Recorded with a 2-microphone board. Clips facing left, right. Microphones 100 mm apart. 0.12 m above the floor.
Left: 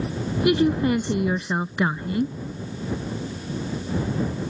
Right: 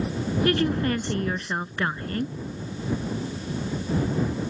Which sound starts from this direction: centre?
A woman speaking, at 0.5 s.